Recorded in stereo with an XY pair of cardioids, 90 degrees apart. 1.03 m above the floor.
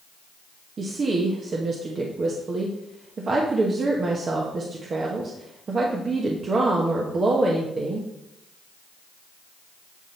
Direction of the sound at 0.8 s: 45° right.